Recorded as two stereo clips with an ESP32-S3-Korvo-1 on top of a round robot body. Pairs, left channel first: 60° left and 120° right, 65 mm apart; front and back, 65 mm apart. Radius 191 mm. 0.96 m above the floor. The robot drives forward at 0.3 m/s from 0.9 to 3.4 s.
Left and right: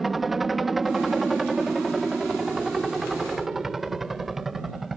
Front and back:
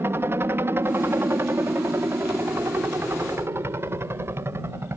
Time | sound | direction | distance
0.0 | a helicopter | 155° left | ?